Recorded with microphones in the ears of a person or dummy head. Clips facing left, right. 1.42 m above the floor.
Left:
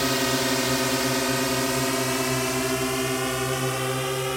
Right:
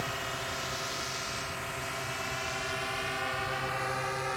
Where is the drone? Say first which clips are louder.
Left 14 dB; 70° left (ahead or behind); by 4.4 s 40° left (ahead or behind).